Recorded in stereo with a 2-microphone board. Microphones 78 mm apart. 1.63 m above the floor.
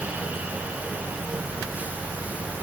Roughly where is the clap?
No clap in this recording.